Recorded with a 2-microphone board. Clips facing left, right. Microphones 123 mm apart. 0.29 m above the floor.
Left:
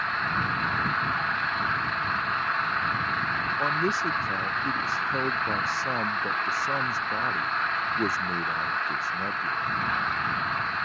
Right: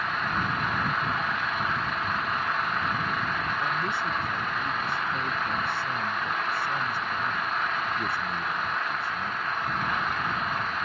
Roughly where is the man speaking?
Left.